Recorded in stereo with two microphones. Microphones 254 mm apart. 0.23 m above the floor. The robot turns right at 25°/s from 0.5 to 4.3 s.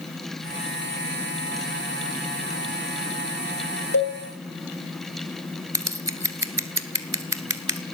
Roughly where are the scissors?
Right.